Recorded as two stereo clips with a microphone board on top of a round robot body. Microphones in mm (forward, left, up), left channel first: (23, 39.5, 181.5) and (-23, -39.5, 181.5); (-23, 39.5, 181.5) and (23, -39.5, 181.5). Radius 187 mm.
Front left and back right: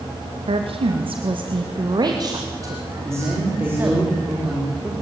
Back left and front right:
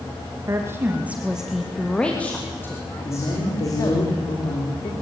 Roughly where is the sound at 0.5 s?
Behind right.